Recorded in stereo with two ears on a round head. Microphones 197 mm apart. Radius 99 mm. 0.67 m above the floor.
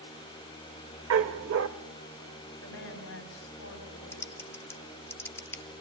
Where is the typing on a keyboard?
10° left (ahead or behind), 0.7 m.